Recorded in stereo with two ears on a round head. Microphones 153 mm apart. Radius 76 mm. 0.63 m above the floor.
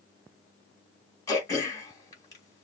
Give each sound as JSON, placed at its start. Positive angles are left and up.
{"t": 1.3, "sound": "throat clearing", "side_deg": 20, "distance_m": 2.5}